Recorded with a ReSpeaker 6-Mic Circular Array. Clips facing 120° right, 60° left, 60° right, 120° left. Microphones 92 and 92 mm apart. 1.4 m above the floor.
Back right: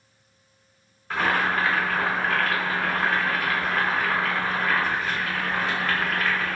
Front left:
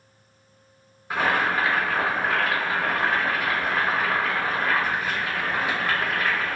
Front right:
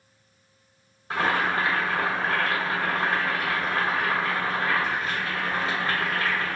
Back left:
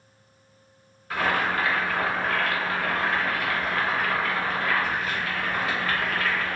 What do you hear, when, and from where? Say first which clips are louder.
1.1 s boiling: front left 1 dB, front right 1 dB; 15° right, 0.7 m